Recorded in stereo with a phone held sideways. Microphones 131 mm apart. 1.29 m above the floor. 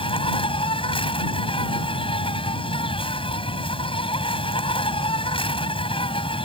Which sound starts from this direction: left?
An insect, at 0.0 s.